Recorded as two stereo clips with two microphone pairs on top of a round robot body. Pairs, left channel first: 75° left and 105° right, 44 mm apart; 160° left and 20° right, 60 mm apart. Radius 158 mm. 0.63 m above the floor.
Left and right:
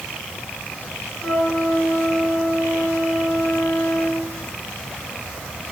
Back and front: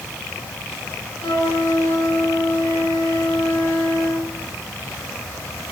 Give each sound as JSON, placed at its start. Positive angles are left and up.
{"t": 1.2, "sound": "a flute", "azimuth_deg": 130, "distance_m": 7.0}